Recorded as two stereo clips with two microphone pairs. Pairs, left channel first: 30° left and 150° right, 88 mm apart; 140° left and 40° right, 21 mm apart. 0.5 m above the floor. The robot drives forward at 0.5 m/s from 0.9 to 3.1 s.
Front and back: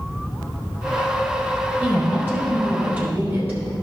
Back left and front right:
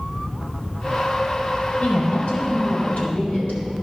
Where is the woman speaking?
135° left, 3 m; by 3.6 s 145° left, 3.5 m.